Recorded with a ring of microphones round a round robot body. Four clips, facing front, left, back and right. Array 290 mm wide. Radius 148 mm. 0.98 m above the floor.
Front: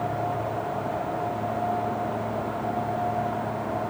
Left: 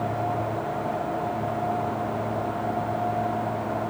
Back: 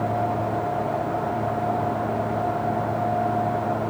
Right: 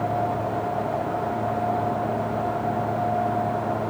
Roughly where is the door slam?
No door slam in this recording.